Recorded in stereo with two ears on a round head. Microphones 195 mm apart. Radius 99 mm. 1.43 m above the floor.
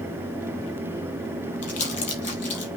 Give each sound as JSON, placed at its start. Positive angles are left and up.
{"t": 1.6, "sound": "crumpling", "side_deg": 35, "distance_m": 3.5}